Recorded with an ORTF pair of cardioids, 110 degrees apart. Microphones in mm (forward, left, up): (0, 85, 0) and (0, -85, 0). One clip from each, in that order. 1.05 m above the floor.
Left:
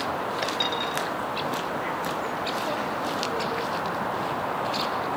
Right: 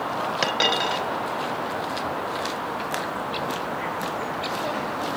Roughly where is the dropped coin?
Ahead right.